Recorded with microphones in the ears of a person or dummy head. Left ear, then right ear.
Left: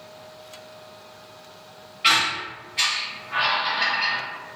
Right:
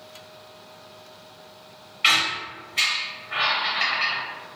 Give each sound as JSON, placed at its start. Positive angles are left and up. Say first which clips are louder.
{"t": 2.0, "sound": "a squeak", "louder": "even", "side_deg": -30, "distance_m": 0.5}